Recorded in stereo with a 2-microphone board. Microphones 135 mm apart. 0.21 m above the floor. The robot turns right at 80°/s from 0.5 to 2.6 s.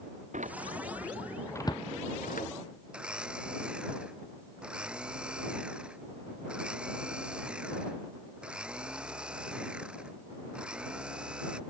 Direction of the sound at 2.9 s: 10° right (ahead or behind).